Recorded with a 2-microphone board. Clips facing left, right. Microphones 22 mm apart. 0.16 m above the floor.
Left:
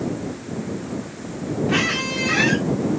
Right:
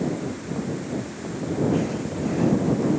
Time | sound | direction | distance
1.7 | a squeak | 80° left | ?